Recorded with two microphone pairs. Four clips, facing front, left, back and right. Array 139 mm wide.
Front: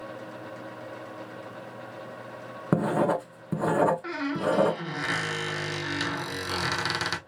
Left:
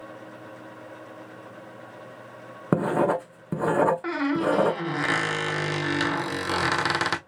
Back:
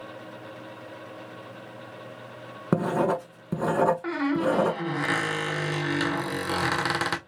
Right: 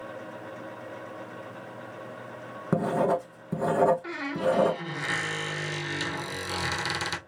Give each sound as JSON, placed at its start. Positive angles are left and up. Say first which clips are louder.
{"t": 2.7, "sound": "writing", "louder": "left 2 dB, even", "azimuth_deg": 100, "distance_m": 1.2}
{"t": 4.0, "sound": "a squeak", "louder": "left 4 dB, back 3 dB", "azimuth_deg": 115, "distance_m": 0.9}